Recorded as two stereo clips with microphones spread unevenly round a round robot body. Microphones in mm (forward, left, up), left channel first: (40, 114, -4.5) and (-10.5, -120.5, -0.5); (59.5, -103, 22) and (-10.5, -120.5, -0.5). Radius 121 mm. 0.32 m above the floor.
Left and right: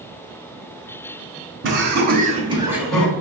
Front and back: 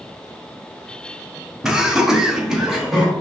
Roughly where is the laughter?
Right.